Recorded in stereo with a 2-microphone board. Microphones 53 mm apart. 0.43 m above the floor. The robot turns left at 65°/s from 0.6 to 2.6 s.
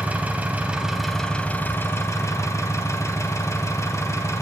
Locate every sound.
0.0 s an engine running: 150° right, 2.5 m; by 4.4 s 80° left, 2.5 m